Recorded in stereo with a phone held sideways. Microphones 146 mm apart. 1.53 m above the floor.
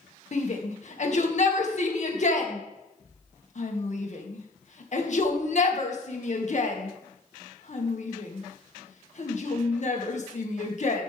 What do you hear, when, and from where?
0.3 s a shout: 55° left (ahead or behind), 1.8 m